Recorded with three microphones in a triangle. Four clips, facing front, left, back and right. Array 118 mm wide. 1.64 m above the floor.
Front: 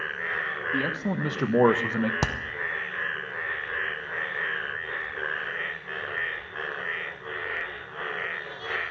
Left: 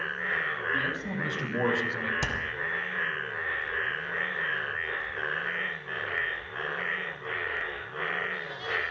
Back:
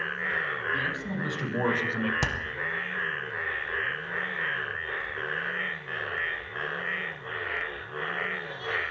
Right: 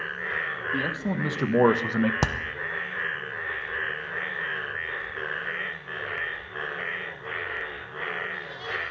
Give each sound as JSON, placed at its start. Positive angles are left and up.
{"t": 0.7, "sound": "a man speaking", "azimuth_deg": -35, "distance_m": 2.0}
{"t": 2.2, "sound": "hammering", "azimuth_deg": -60, "distance_m": 0.8}